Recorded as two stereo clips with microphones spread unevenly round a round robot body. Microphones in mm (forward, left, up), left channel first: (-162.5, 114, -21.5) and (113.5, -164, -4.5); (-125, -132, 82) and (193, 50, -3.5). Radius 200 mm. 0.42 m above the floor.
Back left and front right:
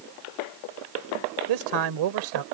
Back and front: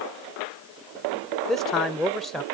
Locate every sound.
1.5 s a man speaking: 50° right